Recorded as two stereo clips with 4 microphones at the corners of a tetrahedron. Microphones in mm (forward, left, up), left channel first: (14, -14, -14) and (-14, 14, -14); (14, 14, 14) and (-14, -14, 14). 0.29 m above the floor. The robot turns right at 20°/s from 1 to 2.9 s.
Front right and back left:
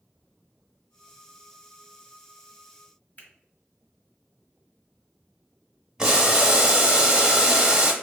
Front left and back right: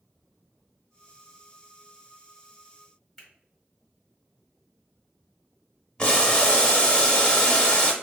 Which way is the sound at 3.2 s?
35° right.